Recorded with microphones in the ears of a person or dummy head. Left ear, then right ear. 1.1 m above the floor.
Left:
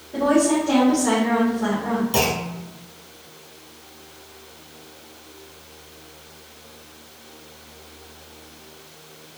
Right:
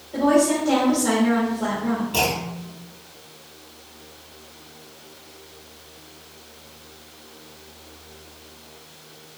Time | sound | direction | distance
0.1 | a woman speaking | 5° right (ahead or behind) | 2.0 m
2.1 | a clunk | 45° left (ahead or behind) | 1.2 m